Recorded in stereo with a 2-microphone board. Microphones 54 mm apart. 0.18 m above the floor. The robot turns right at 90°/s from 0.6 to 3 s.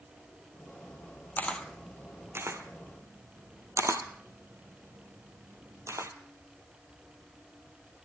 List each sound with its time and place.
1.4 s a camera shutter: 35° left (ahead or behind), 1.3 m; by 6.1 s 65° right (ahead or behind), 1.3 m